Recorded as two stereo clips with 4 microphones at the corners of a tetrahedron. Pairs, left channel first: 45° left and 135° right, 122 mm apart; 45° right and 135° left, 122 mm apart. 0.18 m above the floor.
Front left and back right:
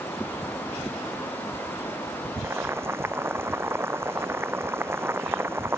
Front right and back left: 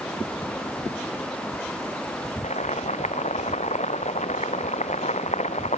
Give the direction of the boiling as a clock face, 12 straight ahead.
2 o'clock.